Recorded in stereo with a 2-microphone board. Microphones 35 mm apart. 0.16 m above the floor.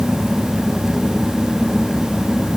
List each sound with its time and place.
Only background noise.